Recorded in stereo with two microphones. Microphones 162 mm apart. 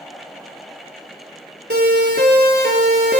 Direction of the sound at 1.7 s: 85° right.